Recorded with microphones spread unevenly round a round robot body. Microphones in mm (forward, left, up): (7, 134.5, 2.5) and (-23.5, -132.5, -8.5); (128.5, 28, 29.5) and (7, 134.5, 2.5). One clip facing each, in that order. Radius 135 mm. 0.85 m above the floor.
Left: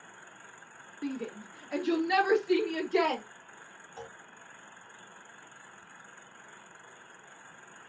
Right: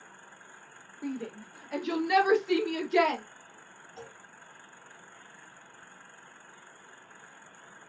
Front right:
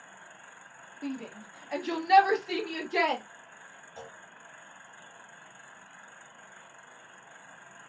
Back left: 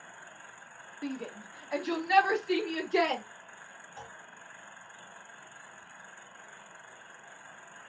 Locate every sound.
1.0 s a shout: 95° left, 0.9 m; by 3.2 s 70° right, 1.2 m
4.0 s a clunk: 30° right, 1.9 m